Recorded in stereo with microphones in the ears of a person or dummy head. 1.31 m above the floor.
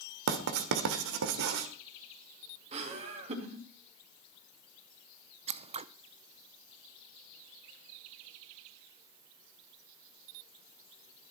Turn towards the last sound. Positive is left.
turn(degrees=-20)  # may be behind; listen again after turning